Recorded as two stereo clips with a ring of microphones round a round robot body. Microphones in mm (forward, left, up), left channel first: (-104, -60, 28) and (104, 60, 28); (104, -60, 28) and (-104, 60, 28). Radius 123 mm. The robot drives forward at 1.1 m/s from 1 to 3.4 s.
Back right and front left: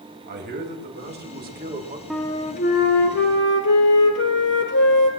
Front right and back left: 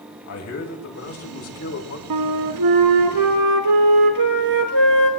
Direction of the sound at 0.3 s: 15° right.